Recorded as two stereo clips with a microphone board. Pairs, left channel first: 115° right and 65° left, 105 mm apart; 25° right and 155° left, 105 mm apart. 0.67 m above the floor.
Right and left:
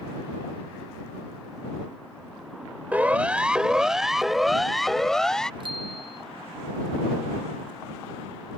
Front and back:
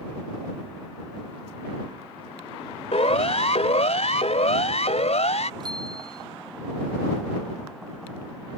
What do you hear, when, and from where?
2.9 s a siren: 10° right; by 5.5 s 30° right
5.6 s a bicycle bell: 110° left